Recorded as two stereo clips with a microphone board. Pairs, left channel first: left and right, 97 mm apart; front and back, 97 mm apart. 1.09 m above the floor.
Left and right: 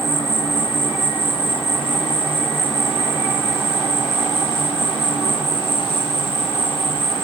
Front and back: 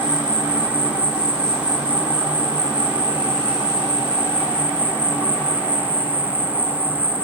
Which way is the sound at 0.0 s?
105° left.